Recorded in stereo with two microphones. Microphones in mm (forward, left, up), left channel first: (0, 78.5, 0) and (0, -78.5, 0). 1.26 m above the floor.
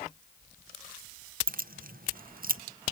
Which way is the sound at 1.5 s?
65° right (ahead or behind).